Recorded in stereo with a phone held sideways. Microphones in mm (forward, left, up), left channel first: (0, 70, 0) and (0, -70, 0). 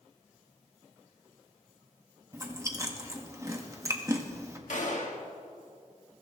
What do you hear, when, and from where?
2.3 s chewing: 20° right (ahead or behind), 1.3 m
4.7 s a gunshot: 65° left (ahead or behind), 1.7 m